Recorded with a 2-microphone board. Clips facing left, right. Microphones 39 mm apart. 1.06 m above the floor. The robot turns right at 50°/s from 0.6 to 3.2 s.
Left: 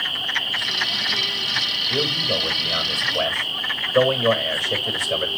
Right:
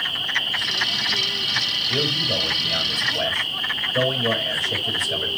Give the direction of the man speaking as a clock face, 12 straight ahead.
12 o'clock.